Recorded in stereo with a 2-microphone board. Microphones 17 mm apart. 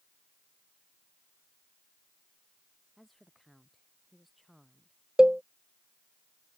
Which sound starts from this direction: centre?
A woman speaking, at 3.0 s.